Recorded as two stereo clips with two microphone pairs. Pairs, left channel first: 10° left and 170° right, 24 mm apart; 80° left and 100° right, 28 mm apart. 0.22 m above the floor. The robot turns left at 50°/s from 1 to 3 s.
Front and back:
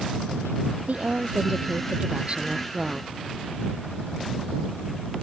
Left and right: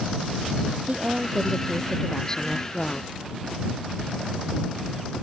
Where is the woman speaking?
145° right; by 3.1 s 115° left.